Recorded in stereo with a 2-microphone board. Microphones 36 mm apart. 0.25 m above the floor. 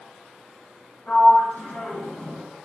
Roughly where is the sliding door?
Left.